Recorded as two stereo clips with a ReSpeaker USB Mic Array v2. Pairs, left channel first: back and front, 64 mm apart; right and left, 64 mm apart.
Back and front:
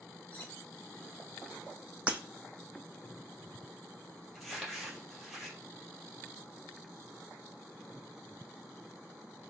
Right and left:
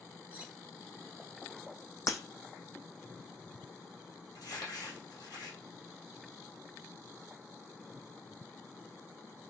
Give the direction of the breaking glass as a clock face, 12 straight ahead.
2 o'clock.